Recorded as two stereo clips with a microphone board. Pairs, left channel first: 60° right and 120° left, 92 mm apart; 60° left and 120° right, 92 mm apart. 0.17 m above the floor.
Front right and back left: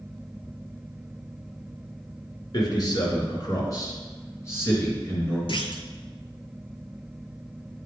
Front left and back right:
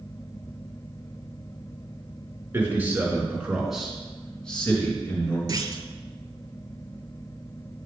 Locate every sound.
2.5 s a man speaking: 65° right, 2.5 m; by 5.4 s 5° left, 2.5 m
5.5 s a clunk: 75° right, 0.6 m